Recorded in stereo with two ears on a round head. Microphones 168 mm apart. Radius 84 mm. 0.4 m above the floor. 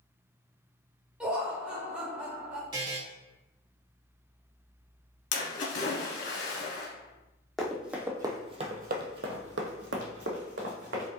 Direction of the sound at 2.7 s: 20° right (ahead or behind).